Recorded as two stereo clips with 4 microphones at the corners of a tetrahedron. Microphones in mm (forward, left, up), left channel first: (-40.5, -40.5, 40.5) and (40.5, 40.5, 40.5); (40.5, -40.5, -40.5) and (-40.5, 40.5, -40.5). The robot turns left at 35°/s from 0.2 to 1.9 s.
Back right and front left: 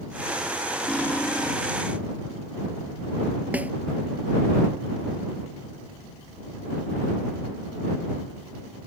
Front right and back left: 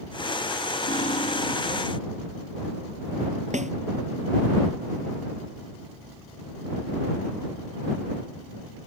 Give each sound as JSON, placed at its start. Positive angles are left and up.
{"t": 0.9, "sound": "cutlery clinking", "azimuth_deg": -55}
{"t": 3.5, "sound": "a snare drum", "azimuth_deg": 125}